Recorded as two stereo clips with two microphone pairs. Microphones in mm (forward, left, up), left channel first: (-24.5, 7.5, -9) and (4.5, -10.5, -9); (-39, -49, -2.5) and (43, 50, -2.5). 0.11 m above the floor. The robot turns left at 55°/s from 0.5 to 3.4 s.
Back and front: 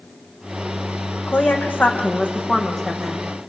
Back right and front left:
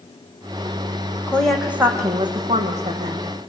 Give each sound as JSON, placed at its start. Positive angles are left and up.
{"t": 1.3, "sound": "a woman speaking", "azimuth_deg": 155, "distance_m": 6.0}